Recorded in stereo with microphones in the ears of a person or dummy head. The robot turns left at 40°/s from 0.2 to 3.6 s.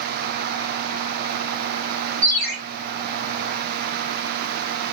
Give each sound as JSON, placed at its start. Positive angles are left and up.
{"t": 2.2, "sound": "a ringtone", "side_deg": -70, "distance_m": 2.5}